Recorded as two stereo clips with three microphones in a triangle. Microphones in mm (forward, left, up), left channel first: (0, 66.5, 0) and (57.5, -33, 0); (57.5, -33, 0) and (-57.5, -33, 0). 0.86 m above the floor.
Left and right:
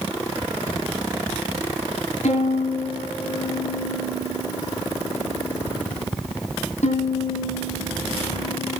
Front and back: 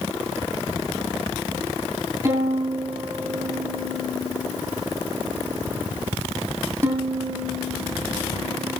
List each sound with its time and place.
2.2 s a violin: 115° left, 8.5 m